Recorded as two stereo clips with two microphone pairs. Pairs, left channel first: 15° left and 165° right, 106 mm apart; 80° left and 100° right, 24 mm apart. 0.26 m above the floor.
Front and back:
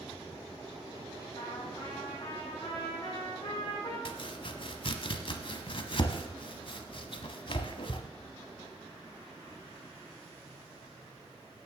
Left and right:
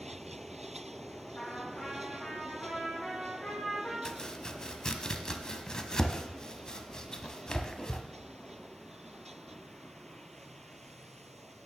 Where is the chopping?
25° left, 1.1 m.